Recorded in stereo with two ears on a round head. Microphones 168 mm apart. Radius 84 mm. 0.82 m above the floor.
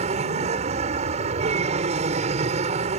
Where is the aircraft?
35° right (ahead or behind).